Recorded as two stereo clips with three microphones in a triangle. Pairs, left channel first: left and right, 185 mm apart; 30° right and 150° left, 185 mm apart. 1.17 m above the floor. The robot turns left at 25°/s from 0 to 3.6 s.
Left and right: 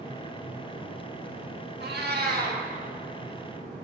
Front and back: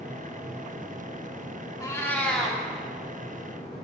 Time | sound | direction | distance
1.8 | a cat meowing | 100° right | 1.3 m